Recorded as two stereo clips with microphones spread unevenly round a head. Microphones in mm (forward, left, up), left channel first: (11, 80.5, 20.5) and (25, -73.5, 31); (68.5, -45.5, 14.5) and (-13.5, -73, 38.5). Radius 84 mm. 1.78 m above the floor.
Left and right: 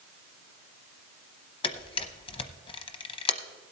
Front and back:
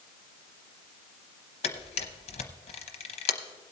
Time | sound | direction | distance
1.6 | a camera shutter | 35° left | 0.8 m